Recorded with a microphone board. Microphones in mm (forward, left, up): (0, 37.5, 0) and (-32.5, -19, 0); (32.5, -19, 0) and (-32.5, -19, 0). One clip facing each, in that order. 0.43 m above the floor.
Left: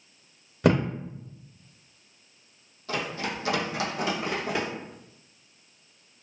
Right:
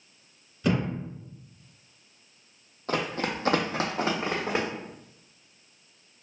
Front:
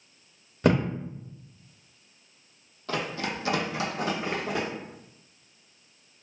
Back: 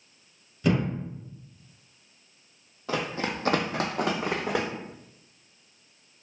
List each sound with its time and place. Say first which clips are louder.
0.6 s a thud: left 4 dB, front 2 dB; 35° left, 0.6 m
2.9 s running footsteps: right 2 dB, back 1 dB; 110° right, 0.6 m; by 4.7 s straight behind, 1.1 m